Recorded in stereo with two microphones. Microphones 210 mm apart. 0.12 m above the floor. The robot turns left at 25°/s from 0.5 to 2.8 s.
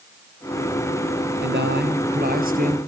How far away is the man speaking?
About 2 m.